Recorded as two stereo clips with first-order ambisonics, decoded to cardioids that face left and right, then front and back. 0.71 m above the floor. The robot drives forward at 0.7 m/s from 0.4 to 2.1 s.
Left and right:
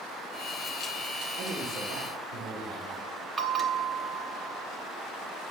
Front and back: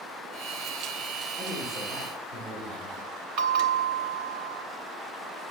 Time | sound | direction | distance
1.4 | a man speaking | 105° right | 2 m
3.4 | a bell | 155° right | 1.0 m